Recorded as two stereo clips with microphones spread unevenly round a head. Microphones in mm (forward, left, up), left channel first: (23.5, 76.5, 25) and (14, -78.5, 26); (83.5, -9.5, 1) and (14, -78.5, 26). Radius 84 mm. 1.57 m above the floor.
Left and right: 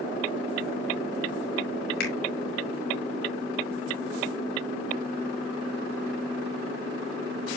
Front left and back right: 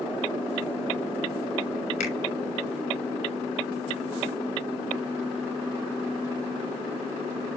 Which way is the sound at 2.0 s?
70° left.